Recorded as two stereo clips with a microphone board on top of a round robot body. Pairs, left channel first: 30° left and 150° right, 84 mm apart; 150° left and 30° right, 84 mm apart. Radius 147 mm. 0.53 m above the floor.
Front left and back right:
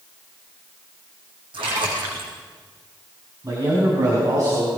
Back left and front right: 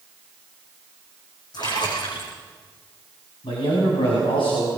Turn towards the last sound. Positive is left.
turn(degrees=160)